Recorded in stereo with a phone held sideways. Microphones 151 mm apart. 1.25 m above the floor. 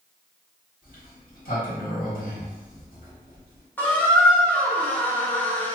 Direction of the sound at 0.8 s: 70° left (ahead or behind).